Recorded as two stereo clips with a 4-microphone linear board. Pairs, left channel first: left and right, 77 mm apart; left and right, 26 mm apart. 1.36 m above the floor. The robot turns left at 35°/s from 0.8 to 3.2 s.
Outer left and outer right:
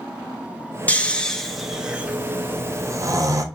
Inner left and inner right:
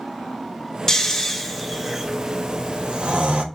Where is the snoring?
20° left (ahead or behind), 0.6 m; by 3.4 s 50° right (ahead or behind), 0.6 m.